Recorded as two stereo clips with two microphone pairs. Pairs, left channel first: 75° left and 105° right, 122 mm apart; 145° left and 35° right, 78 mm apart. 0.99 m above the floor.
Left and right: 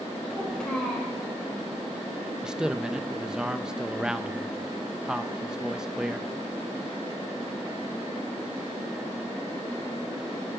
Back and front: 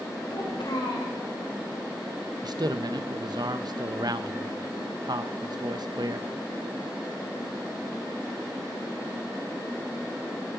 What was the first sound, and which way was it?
A child speaking, 155° left.